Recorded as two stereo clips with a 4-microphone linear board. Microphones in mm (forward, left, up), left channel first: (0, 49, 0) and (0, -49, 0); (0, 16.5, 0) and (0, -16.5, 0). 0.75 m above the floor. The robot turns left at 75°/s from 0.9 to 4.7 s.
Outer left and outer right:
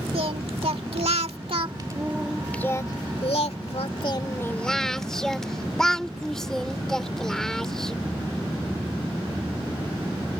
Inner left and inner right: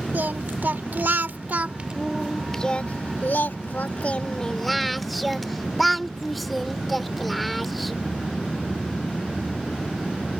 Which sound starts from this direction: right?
Singing, at 0.1 s.